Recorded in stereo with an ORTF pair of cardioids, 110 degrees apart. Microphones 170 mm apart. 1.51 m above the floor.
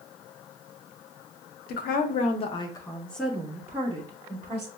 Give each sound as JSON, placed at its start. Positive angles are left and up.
{"t": 1.7, "sound": "a woman speaking", "azimuth_deg": 65, "distance_m": 0.8}